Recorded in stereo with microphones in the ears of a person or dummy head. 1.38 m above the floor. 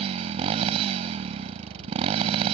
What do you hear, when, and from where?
0.0 s a motorcycle: 35° right (ahead or behind)